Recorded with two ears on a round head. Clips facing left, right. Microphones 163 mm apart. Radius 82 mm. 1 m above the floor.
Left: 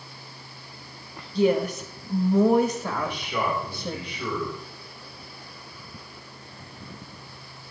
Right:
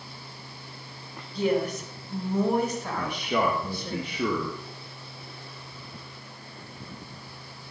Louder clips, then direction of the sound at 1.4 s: Left 4 dB; 75° left (ahead or behind).